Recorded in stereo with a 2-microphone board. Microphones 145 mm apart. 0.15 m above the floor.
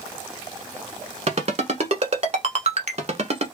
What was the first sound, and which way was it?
A ringtone, 50° right (ahead or behind).